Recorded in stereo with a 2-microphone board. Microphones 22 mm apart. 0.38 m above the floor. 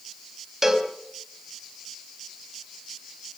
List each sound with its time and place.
0.6 s a cowbell: 20° right (ahead or behind), 2.5 m